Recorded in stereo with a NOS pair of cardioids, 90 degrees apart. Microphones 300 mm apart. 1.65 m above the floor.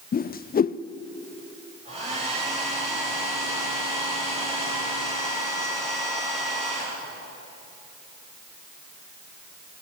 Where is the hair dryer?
20° right, 10 m.